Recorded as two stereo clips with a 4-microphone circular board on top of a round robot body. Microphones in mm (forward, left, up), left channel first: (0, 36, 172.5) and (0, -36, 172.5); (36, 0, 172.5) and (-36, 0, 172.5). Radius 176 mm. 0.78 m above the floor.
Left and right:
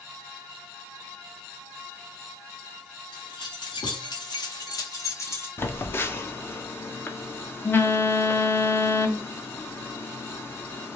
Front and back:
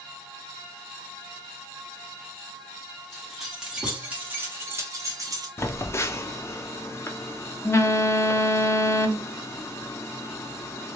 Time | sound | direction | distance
3.1 | keys jangling | 90° left | 1.6 m
5.6 | a phone buzzing | 40° left | 0.8 m